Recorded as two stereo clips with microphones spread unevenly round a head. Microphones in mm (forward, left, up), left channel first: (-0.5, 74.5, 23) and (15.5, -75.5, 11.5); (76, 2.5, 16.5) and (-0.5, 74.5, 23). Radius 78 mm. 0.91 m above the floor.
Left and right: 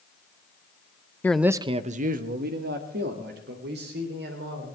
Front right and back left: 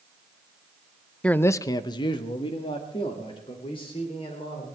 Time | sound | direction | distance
1.2 | a man speaking | 20° left | 0.6 m